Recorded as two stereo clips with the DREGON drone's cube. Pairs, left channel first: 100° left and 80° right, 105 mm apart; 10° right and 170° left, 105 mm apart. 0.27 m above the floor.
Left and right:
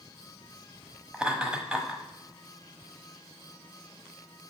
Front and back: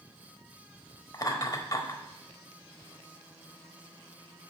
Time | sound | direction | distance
1.1 | laughter | 5° right | 1.0 m